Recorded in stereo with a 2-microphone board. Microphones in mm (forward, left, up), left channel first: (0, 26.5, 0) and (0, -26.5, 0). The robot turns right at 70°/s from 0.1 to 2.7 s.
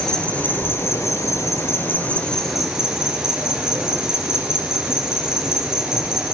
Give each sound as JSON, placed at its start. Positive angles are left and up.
{"t": 0.0, "sound": "an insect", "azimuth_deg": 10, "distance_m": 3.5}